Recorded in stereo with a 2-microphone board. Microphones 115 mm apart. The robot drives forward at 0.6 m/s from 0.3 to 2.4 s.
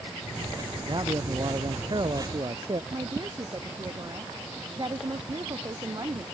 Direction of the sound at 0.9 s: 40° right (ahead or behind).